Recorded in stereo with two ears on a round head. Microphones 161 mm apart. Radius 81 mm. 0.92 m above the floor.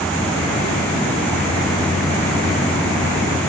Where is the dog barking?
I don't hear a dog barking.